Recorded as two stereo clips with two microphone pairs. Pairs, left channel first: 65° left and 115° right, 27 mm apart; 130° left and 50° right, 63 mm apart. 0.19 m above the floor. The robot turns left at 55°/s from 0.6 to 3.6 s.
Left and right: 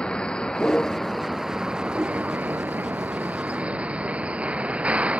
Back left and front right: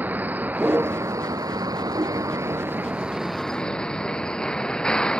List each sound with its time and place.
0.0 s a vehicle: 10° left; by 5.2 s 155° right